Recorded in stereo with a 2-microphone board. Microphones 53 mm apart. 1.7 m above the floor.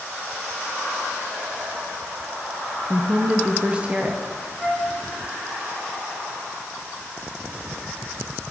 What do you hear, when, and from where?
2.9 s a woman speaking: 20° right (ahead or behind), 0.7 m
4.6 s a flute: 10° left (ahead or behind), 1.5 m